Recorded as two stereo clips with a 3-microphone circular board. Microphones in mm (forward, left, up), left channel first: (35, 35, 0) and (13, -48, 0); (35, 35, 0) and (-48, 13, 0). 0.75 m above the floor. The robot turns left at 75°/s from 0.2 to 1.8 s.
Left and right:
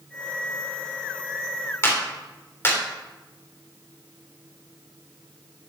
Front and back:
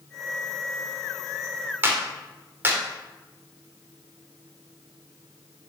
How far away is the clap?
About 2.5 m.